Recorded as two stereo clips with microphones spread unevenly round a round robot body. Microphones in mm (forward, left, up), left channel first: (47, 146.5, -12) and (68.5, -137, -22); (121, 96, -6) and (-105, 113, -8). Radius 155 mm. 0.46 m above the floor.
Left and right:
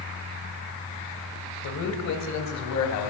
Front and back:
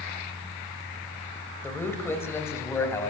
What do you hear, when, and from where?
1.6 s a man speaking: 75° left, 2.5 m